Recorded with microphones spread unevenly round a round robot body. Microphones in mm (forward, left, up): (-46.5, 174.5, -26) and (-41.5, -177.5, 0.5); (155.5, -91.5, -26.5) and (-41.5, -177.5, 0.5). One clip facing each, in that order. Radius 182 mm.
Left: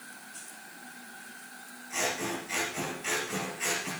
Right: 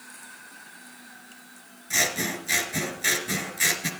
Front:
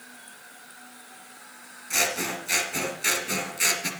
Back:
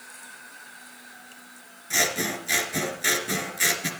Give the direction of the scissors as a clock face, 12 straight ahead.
3 o'clock.